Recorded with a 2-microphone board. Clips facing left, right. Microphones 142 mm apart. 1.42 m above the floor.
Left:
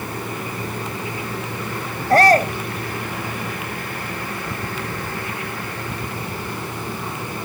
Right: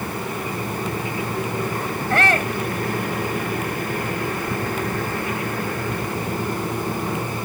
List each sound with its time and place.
2.1 s a shout: 40° left (ahead or behind)